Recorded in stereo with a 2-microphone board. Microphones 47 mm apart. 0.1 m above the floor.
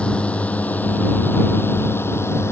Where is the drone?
25° left (ahead or behind); by 2.5 s 65° left (ahead or behind).